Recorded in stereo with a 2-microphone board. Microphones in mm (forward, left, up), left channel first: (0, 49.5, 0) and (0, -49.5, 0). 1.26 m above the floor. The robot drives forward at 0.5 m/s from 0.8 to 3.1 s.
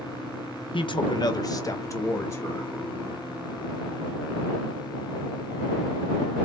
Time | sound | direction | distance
0.7 | a man speaking | 55° left (ahead or behind) | 0.7 m